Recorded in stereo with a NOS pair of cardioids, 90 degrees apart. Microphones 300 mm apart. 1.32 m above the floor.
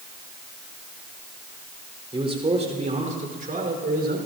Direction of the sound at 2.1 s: 15° right.